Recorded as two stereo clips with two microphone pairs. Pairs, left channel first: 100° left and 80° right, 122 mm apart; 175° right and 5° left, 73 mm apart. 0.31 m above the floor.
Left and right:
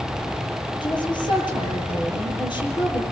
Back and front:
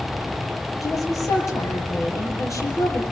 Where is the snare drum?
No snare drum in this recording.